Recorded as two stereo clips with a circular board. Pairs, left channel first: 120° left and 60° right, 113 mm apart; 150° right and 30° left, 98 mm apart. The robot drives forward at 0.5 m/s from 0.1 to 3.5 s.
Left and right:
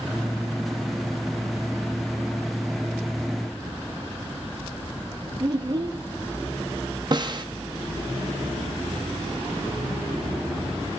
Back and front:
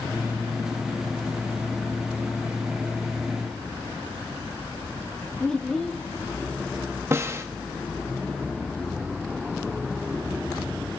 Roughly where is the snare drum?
Ahead right.